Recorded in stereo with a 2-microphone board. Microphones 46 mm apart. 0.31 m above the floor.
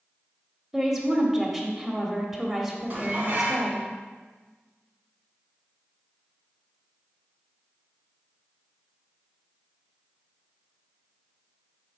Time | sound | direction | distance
0.7 | a woman speaking | 5° right (ahead or behind) | 1.2 m
2.9 | dishes clattering | 40° right (ahead or behind) | 1.6 m